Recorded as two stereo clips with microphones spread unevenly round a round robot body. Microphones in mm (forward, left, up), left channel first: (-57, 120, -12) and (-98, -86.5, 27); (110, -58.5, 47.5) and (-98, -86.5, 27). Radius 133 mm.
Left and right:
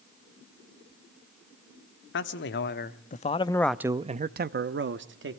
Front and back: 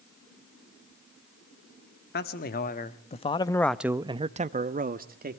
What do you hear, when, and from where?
2.1 s a man speaking: 55° left, 1.5 m; by 5.4 s 130° right, 1.5 m